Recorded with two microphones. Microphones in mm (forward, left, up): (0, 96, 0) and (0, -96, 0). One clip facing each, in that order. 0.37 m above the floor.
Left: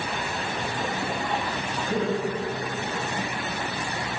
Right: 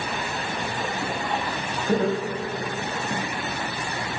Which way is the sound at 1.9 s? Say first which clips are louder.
Right 3 dB; 50° right (ahead or behind).